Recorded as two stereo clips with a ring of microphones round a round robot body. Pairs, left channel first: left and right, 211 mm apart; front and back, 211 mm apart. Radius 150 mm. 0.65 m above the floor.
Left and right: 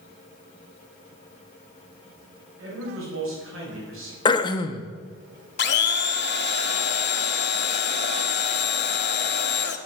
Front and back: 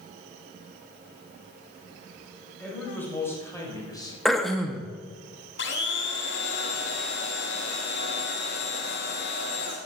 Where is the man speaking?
85° right, 4.5 m; by 4.2 s 70° right, 3.5 m.